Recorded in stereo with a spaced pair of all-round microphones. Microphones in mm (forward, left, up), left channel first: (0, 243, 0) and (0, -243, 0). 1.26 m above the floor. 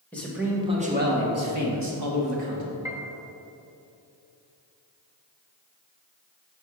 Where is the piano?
5° right (ahead or behind), 0.7 m.